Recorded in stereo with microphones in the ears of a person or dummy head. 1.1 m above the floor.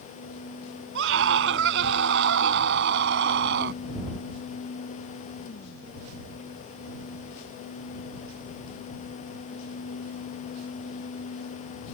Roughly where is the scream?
Right.